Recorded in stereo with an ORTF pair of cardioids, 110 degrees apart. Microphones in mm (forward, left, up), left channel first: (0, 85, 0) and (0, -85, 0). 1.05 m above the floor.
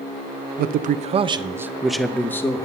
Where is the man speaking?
70° right, 0.9 m; by 2.6 s 20° left, 1.3 m.